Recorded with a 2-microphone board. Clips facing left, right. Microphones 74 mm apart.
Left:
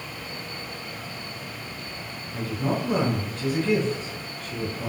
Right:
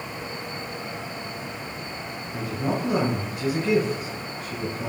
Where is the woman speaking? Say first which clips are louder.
Even; 10° right (ahead or behind), 1.2 m.